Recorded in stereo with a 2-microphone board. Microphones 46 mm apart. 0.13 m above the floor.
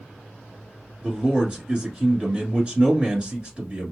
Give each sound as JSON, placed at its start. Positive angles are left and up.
{"t": 1.0, "sound": "a man speaking", "side_deg": -25, "distance_m": 1.4}